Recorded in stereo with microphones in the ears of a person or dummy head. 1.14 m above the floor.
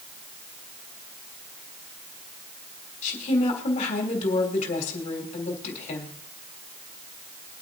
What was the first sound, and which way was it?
A woman speaking, 40° left (ahead or behind).